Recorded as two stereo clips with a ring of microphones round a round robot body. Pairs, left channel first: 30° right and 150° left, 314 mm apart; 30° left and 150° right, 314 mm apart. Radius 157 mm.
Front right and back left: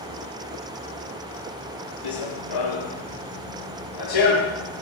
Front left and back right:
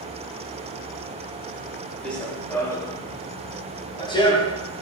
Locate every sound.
2.0 s running footsteps: 55° right, 4 m; by 4.8 s 45° right, 6.5 m